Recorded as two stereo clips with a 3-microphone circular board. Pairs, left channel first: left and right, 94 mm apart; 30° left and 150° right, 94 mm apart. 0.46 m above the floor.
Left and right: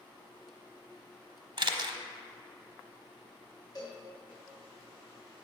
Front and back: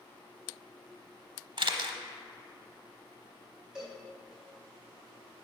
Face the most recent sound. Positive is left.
turn(degrees=130)